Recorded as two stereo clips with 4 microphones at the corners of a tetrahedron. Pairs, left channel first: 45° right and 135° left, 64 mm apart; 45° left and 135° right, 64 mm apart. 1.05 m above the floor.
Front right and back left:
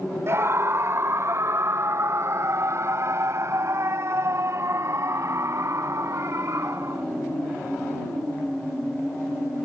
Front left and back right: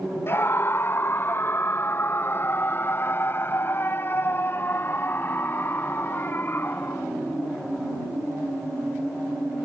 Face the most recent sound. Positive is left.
turn(degrees=100)